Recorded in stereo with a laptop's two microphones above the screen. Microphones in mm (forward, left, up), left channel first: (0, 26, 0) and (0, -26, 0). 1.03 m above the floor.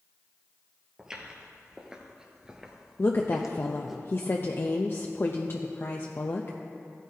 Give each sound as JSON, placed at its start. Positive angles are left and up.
{"t": 1.0, "sound": "footsteps", "side_deg": -15, "distance_m": 1.2}
{"t": 3.0, "sound": "a woman speaking", "side_deg": 45, "distance_m": 0.6}